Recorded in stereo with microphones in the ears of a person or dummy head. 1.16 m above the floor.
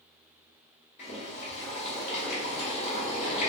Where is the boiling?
30° left (ahead or behind), 1.1 m.